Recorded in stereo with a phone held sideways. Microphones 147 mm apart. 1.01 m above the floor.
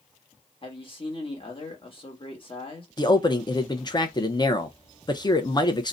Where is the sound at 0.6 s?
40° left (ahead or behind), 1.1 m.